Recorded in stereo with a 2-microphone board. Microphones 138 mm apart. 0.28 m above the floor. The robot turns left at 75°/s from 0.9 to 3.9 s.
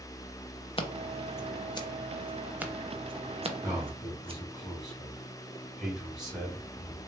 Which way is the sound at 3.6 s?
20° right (ahead or behind).